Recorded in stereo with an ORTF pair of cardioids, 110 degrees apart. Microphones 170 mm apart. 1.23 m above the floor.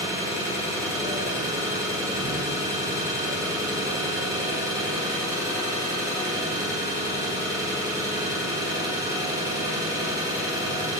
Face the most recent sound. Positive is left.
turn(degrees=-20)